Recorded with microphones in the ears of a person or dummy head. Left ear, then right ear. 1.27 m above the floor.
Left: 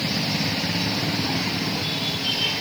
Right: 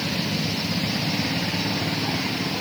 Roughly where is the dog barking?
No dog barking in this recording.